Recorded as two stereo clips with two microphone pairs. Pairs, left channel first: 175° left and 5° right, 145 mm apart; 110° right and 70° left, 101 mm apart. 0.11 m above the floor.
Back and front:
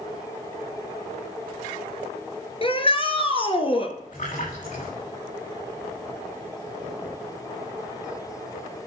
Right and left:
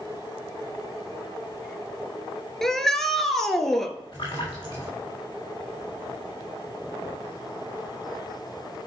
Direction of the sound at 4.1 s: 160° right.